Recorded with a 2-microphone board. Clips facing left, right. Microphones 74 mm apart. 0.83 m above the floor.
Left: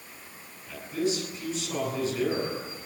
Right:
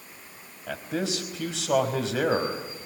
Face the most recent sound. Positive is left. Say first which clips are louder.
# left 1 dB
turn(degrees=-80)